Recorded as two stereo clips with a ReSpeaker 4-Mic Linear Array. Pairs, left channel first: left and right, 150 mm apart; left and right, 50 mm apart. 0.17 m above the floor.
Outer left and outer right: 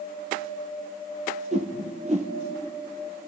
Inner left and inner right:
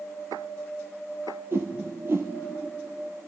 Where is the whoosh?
50° right (ahead or behind), 1.5 m.